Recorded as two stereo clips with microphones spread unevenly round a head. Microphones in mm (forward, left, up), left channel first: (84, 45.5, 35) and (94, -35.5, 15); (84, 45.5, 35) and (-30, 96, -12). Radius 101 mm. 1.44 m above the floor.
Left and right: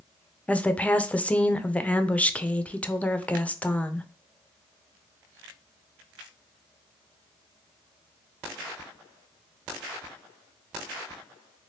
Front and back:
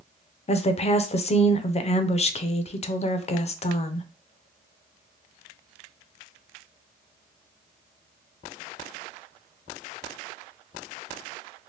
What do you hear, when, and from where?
0.5 s a woman speaking: 20° left, 0.5 m